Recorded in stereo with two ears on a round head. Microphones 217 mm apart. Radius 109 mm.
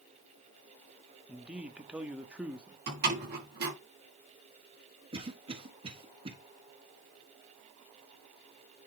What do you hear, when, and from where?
1.3 s a man speaking: 5° right (ahead or behind), 0.9 m
2.9 s a door slam: 45° right (ahead or behind), 5.5 m
5.1 s a cough: 20° right (ahead or behind), 1.4 m